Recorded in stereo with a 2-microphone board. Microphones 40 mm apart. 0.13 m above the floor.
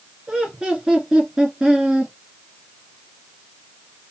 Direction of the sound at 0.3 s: 20° right (ahead or behind).